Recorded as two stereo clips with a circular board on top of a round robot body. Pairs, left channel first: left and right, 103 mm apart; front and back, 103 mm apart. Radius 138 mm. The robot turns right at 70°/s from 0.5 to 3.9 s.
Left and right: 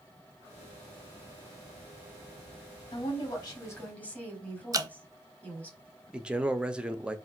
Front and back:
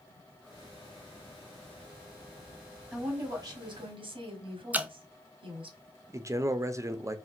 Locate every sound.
2.9 s a woman speaking: 95° left, 1.8 m; by 5.7 s 165° left, 1.8 m
4.7 s dripping: 115° right, 0.6 m
6.1 s a man speaking: 160° right, 0.7 m